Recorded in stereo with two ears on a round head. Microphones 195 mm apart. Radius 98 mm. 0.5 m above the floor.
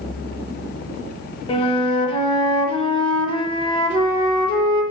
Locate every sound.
1.5 s a flute: 25° left (ahead or behind), 1.1 m